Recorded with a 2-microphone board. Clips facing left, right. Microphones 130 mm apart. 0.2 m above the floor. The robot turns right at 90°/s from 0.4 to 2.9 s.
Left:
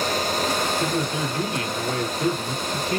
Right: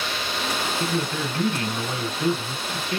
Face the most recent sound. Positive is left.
turn(degrees=60)